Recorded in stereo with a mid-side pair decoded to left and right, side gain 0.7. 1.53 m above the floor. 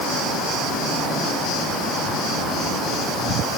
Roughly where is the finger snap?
No finger snap in this recording.